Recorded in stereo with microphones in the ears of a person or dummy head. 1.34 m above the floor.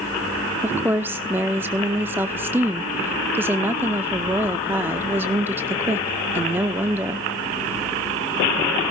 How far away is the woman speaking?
About 0.6 m.